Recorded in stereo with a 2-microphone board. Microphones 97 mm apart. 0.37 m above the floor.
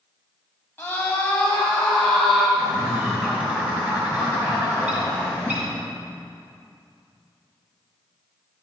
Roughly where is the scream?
Centre.